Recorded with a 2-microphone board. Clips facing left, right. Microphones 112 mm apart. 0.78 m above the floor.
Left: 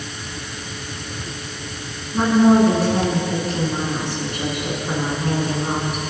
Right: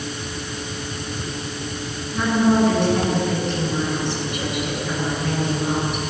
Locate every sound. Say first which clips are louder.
2.1 s a woman speaking: left 4 dB; 40° left (ahead or behind), 8.5 m